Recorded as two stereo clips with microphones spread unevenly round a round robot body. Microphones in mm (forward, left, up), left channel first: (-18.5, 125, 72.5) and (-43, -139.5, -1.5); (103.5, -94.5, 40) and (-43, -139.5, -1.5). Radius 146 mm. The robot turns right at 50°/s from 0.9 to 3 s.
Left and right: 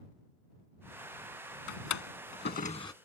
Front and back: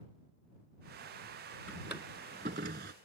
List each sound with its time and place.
1.7 s a drawer: 100° left; by 2.9 s 165° left